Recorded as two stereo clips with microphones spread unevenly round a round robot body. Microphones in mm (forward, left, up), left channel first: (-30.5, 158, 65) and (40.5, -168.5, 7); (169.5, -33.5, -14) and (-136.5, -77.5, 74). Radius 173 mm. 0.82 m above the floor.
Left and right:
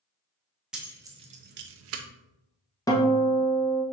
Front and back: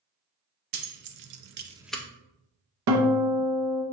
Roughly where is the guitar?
Behind.